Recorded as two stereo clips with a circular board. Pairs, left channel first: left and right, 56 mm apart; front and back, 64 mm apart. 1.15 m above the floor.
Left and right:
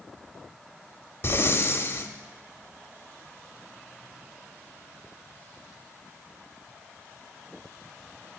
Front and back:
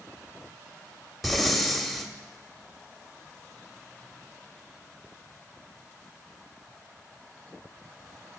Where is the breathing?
95° left, 0.9 m.